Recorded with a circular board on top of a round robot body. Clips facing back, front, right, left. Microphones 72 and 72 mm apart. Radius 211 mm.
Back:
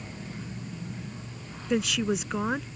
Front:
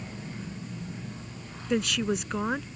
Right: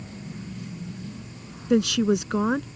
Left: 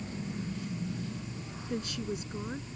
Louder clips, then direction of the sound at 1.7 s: Back 1 dB, right 15 dB; 90° right.